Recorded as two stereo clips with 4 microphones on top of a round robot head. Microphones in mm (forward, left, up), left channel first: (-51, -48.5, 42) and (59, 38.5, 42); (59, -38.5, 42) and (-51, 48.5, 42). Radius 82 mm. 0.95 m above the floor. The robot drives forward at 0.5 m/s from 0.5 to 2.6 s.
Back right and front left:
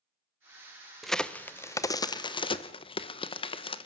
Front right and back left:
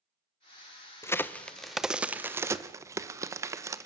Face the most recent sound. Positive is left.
turn(degrees=-160)